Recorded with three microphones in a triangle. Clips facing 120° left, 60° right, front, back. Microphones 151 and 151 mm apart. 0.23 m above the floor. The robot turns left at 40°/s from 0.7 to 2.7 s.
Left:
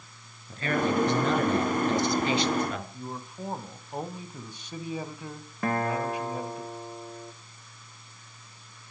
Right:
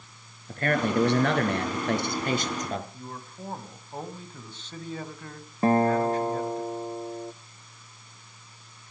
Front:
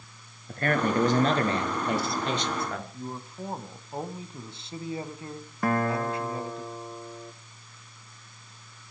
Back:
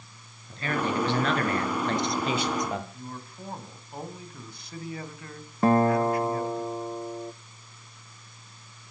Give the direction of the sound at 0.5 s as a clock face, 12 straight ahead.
1 o'clock.